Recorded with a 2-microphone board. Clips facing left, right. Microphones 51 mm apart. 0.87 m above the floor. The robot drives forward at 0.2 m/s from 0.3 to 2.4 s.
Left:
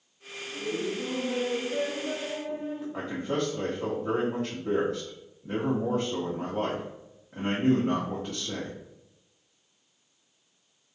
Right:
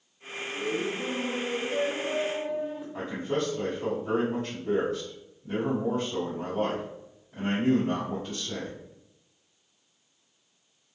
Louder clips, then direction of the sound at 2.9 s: Right 1 dB; 50° left (ahead or behind).